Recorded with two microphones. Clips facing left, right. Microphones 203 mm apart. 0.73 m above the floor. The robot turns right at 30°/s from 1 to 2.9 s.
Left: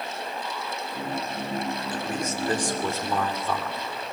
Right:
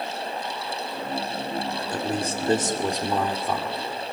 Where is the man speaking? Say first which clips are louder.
Right 3 dB; 40° right (ahead or behind), 2.5 m; by 3.8 s 15° right (ahead or behind), 2.5 m.